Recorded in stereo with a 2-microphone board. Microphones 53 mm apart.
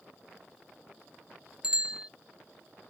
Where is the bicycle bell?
15° right (ahead or behind).